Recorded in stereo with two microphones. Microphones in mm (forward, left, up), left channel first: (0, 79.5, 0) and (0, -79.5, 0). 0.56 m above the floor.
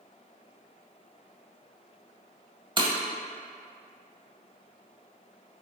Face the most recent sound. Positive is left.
turn(degrees=-30)  # may be behind; listen again after turning